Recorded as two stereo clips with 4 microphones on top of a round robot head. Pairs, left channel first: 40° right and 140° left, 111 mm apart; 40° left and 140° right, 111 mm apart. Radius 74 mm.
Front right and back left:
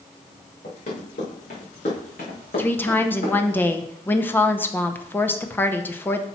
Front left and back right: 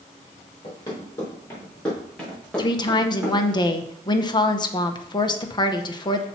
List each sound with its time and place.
0.6 s running footsteps: 20° right, 4 m; by 3.6 s 65° right, 4 m
2.6 s a woman speaking: 20° left, 0.8 m